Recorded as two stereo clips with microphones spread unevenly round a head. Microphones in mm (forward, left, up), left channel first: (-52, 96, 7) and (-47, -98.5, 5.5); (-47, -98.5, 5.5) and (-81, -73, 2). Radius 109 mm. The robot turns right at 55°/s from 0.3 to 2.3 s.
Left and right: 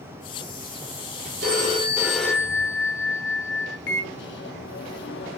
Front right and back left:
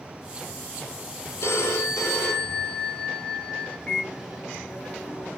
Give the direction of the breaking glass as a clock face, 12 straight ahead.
No breaking glass in this recording.